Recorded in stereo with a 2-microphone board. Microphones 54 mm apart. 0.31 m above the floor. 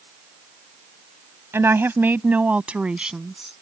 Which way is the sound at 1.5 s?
50° right (ahead or behind).